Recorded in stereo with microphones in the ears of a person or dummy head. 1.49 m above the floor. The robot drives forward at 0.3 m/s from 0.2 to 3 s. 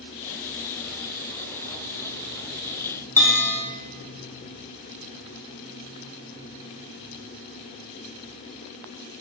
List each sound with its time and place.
3.2 s a bell: 10° left (ahead or behind), 1.5 m